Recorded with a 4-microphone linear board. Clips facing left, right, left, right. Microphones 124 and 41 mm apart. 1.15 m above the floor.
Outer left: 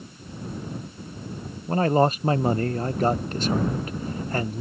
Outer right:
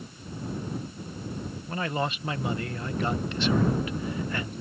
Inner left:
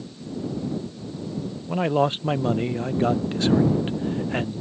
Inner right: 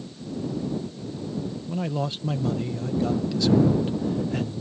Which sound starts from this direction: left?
A man speaking, at 1.7 s.